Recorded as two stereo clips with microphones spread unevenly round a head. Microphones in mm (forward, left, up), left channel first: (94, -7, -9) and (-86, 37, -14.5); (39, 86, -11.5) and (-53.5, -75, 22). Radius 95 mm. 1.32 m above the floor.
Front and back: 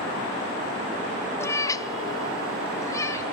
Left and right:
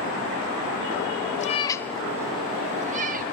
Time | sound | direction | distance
1.4 | a cat meowing | 40° left | 0.5 m